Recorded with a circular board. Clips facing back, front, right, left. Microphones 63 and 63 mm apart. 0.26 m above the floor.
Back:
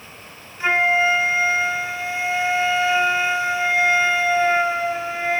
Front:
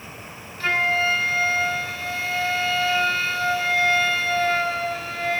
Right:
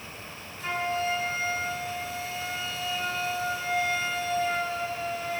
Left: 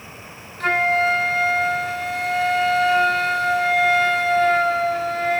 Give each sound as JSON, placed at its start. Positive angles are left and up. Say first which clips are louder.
{"t": 0.6, "sound": "a flute", "louder": "back 4 dB, left 10 dB", "azimuth_deg": 110, "distance_m": 0.9}